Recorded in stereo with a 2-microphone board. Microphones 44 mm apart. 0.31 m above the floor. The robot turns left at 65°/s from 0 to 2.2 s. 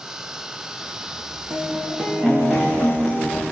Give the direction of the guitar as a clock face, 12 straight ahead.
4 o'clock.